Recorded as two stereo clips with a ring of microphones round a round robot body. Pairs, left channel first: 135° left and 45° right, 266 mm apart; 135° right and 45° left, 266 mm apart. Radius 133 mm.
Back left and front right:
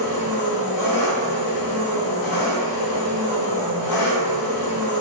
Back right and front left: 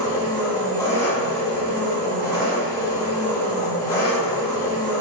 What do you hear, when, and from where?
0.0 s an engine running: 150° left, 0.9 m